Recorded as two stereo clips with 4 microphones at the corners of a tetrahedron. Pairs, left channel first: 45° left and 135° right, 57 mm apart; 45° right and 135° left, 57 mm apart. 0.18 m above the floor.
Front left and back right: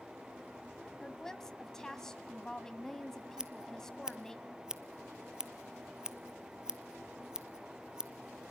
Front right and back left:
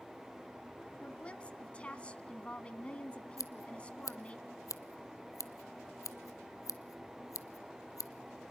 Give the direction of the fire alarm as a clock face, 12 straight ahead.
No fire alarm in this recording.